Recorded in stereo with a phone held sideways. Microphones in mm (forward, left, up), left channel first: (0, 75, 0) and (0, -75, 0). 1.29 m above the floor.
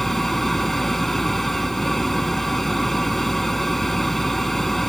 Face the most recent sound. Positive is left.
turn(degrees=0)  # may be behind; listen again after turning